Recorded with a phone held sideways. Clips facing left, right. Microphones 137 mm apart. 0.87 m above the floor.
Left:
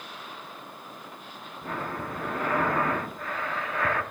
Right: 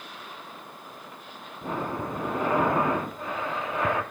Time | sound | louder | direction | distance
1.6 | breathing | right 3 dB | 20° right (ahead or behind) | 0.8 m